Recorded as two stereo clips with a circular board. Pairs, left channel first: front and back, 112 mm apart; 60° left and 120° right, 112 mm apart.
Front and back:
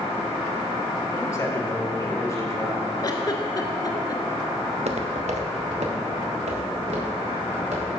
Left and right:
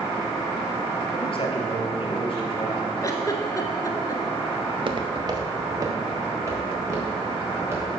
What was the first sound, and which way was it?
A man speaking, 55° left.